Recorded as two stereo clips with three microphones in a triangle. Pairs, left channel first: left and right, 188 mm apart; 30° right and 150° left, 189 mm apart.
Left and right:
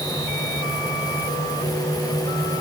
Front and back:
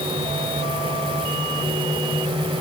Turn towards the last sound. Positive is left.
No sound to turn to.